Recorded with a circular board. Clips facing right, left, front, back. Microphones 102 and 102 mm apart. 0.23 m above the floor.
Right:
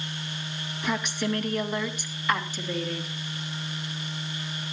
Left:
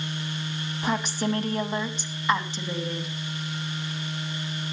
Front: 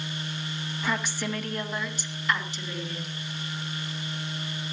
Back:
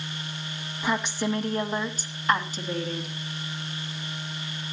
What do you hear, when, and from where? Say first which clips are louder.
0.8 s a woman speaking: left 2 dB, back 4 dB; 115° left, 1.9 m; by 3.1 s 160° left, 2.5 m